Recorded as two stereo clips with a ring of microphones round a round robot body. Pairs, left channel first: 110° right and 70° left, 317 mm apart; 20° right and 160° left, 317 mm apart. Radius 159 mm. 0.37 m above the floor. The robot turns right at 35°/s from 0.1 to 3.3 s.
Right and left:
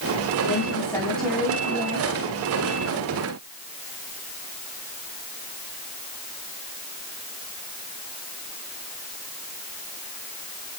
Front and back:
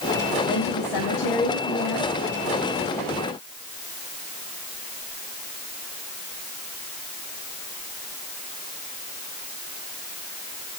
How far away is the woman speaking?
About 2.5 m.